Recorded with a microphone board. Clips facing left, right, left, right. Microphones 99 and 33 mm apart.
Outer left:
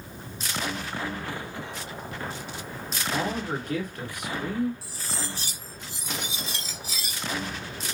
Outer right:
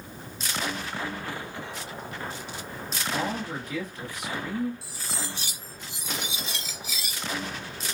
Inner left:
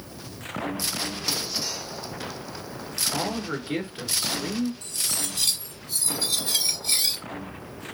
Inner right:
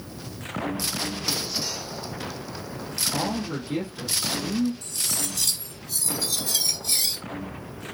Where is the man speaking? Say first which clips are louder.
Outer left 2 dB, inner right 1 dB; 60° left (ahead or behind), 2.5 m.